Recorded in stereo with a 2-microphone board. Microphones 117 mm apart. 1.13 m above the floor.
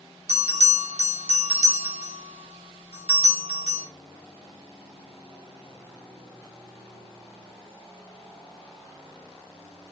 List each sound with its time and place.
0.3 s a bell: 65° right (ahead or behind), 0.9 m